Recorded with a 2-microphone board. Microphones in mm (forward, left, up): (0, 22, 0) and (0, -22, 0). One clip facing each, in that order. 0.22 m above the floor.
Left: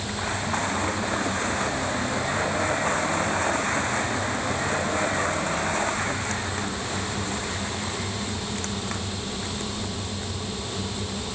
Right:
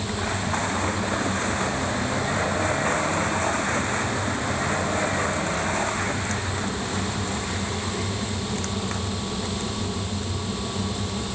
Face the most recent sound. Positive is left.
No sound to turn to.